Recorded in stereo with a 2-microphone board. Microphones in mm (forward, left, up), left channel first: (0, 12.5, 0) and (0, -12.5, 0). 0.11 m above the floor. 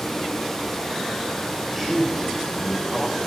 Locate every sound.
1.7 s a man speaking: centre (ahead or behind), 6.5 m